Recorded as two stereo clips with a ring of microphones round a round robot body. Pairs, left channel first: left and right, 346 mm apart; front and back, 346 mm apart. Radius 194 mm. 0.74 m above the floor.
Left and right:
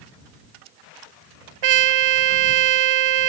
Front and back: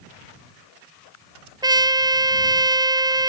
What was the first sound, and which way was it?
A trumpet, 100° right.